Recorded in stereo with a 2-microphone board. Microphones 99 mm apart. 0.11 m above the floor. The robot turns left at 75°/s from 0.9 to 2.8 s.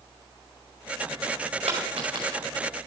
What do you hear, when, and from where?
1.7 s a dropped coin: 85° right, 4.5 m; by 2.4 s 35° right (ahead or behind), 4.5 m